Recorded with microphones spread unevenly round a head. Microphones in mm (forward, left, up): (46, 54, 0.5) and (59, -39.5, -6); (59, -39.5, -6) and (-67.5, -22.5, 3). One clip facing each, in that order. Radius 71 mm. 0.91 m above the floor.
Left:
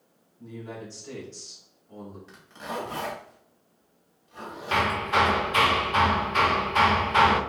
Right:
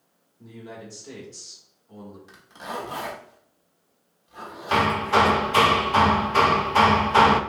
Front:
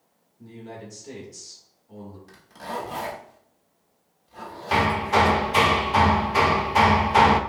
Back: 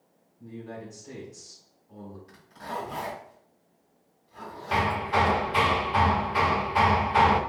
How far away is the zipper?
About 1.5 m.